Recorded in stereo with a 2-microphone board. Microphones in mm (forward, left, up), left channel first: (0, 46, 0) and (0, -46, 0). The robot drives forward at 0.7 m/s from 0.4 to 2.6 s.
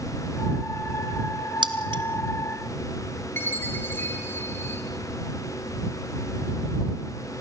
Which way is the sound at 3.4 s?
25° left (ahead or behind).